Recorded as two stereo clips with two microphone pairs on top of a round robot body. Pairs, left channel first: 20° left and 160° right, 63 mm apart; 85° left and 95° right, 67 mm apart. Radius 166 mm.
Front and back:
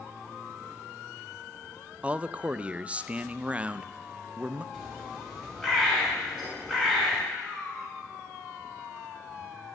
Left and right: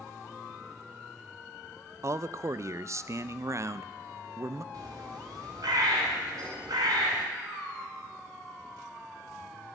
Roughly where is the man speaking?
Right.